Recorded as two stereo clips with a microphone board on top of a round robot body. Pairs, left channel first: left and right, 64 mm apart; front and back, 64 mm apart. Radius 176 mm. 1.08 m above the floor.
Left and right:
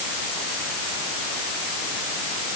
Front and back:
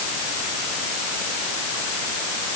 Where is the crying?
I don't hear crying.